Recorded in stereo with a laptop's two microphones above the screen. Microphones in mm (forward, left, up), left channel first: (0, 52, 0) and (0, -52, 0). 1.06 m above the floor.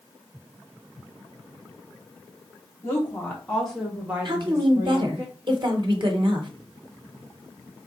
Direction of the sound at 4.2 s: 50° right (ahead or behind).